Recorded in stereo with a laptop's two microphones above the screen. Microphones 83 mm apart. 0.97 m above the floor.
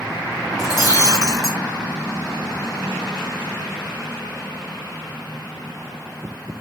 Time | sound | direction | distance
0.6 | breaking glass | 45° left (ahead or behind) | 4 m